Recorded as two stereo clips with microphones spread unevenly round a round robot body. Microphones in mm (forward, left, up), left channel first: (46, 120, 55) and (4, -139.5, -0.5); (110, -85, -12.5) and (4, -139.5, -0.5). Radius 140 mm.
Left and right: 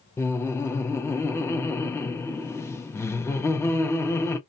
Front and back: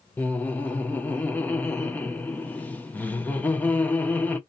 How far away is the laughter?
About 0.7 m.